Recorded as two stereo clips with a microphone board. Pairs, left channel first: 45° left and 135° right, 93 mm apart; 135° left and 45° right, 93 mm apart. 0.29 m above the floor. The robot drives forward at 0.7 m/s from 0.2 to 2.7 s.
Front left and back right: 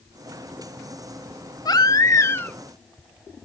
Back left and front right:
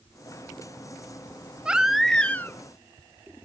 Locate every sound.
1.6 s a baby crying: 30° left, 0.9 m; by 2.5 s 105° left, 0.7 m